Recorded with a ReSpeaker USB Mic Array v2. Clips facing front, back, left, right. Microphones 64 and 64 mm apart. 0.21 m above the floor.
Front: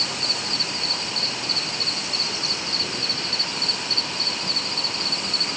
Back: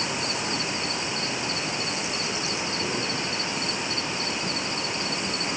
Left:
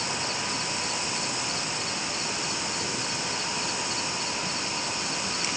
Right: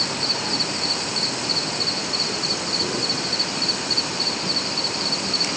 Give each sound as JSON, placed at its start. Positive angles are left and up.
{"t": 0.0, "sound": "an insect", "azimuth_deg": -110}